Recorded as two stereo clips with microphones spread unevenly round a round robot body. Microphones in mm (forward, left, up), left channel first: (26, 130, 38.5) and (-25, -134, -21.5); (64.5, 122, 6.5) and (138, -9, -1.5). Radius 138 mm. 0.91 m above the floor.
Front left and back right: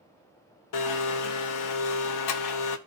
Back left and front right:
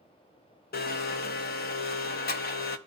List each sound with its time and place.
0.7 s a blender: 105° left, 0.8 m